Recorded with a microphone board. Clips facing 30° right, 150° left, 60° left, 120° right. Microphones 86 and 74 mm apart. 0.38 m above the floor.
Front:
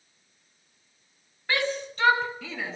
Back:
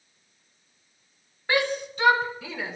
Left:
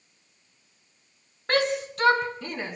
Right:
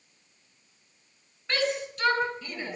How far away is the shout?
About 4 m.